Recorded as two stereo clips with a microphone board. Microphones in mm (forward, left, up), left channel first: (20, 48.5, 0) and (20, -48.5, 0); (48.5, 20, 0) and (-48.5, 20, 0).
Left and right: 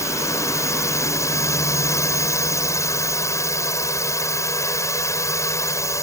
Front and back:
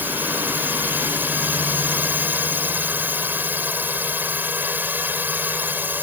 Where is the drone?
120° left.